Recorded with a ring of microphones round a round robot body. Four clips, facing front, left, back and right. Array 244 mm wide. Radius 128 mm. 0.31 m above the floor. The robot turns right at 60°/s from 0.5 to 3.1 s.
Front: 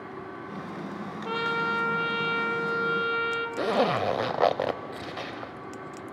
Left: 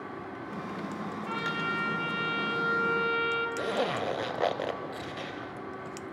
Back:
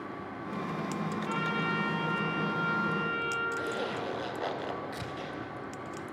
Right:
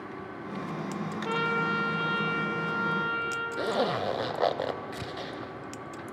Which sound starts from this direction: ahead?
A zipper, at 3.6 s.